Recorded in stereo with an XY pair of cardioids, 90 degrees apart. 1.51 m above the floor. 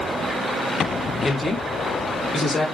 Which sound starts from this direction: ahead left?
A woman speaking, at 1.2 s.